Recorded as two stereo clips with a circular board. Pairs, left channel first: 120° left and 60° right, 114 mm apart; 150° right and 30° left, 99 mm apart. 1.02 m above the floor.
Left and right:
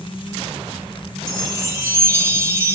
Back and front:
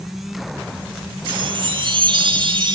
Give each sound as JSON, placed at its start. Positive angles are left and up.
{"t": 1.3, "sound": "a chime", "azimuth_deg": 5, "distance_m": 1.4}